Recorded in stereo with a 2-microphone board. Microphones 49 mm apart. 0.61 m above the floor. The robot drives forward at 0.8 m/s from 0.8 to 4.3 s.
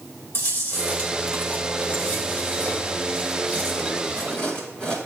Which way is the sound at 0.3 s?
55° left (ahead or behind).